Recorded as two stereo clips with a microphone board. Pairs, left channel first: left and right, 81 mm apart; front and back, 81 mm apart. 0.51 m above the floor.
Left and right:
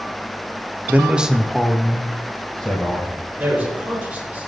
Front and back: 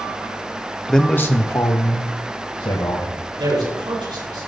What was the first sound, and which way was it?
A man speaking, 80° right.